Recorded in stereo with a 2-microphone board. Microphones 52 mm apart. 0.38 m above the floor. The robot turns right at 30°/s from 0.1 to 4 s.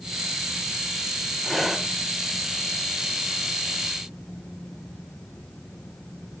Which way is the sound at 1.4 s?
Centre (ahead or behind).